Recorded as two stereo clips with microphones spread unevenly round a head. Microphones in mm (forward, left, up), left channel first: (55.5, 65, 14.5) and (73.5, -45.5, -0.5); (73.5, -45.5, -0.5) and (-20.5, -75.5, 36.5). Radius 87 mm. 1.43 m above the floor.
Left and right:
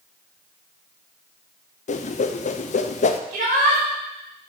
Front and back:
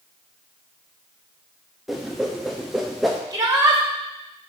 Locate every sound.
1.9 s a whoosh: 95° left, 0.5 m
3.3 s a shout: 105° right, 1.4 m